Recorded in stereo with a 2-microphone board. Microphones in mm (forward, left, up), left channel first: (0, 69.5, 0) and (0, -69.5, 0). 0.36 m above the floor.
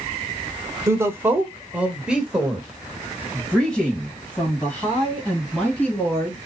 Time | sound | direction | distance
0.9 | a woman speaking | 20° right (ahead or behind) | 1.1 m